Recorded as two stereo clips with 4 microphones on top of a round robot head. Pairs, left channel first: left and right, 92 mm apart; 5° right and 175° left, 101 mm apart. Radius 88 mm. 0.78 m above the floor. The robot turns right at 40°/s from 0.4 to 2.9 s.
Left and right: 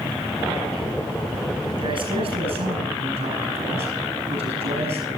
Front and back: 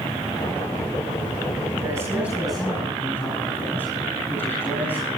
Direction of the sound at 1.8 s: 120° right.